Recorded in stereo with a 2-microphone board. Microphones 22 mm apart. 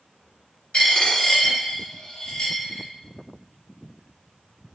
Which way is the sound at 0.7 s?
55° left (ahead or behind).